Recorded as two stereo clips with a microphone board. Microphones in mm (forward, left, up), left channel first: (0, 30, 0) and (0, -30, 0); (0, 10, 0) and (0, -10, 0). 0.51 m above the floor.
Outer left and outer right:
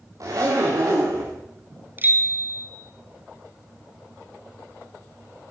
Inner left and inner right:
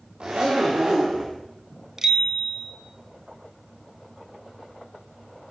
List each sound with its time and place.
0.2 s a zipper: 65° right (ahead or behind), 9 m
2.0 s a bicycle bell: 30° right (ahead or behind), 3.5 m